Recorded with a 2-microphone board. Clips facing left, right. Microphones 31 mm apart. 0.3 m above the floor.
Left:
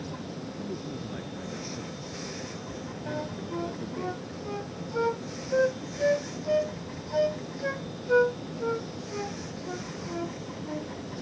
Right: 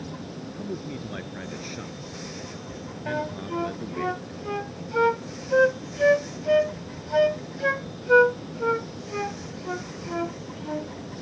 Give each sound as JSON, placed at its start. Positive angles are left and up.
{"t": 0.5, "sound": "a man speaking", "side_deg": -40}
{"t": 3.1, "sound": "a flute", "side_deg": -50}